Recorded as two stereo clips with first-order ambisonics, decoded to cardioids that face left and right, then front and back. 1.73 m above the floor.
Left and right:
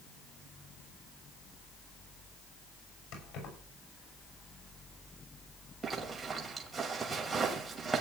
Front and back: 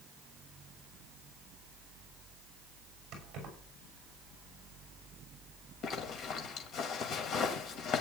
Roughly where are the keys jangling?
Behind left.